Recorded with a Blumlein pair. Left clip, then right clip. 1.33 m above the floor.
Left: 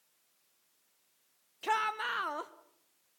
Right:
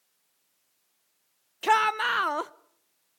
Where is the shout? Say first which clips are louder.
Right 9 dB; 65° right, 0.7 m.